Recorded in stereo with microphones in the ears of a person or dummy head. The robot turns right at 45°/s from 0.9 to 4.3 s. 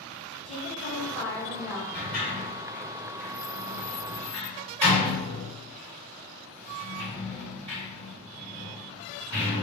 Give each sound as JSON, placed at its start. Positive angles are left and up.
{"t": 0.5, "sound": "a woman speaking", "azimuth_deg": 115, "distance_m": 0.9}
{"t": 1.9, "sound": "a sliding door", "side_deg": 55, "distance_m": 1.7}